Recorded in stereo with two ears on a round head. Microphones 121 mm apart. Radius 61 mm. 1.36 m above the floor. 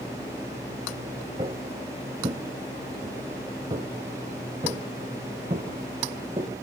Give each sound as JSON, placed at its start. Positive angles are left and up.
{"t": 1.4, "sound": "footsteps", "side_deg": -35, "distance_m": 1.6}